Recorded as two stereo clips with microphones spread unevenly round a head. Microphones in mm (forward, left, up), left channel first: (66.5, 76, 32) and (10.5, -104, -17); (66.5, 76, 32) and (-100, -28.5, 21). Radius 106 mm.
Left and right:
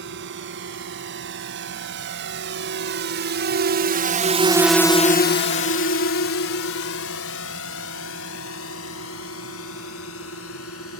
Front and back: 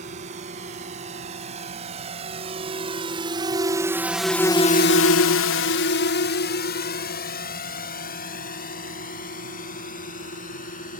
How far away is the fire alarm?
No fire alarm in this recording.